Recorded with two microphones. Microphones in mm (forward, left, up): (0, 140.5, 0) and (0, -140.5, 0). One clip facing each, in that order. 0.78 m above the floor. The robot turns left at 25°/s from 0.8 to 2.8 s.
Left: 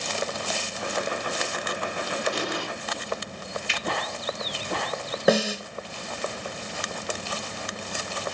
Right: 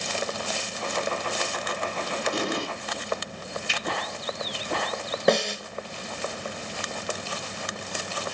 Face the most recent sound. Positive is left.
turn(degrees=5)  # may be behind; listen again after turning